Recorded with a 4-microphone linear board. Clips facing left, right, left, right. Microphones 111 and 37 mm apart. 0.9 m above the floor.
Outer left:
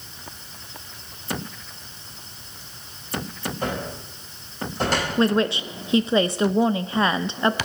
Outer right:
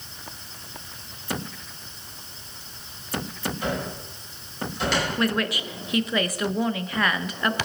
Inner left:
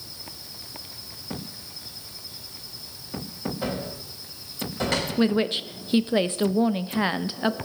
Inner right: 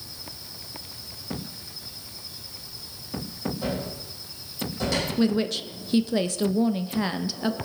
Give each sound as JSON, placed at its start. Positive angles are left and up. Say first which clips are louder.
{"t": 3.6, "sound": "a cupboard door", "louder": "outer left 2 dB, even", "side_deg": 45, "distance_m": 6.0}
{"t": 5.2, "sound": "a woman speaking", "louder": "outer left 5 dB, inner left 2 dB", "side_deg": 25, "distance_m": 0.6}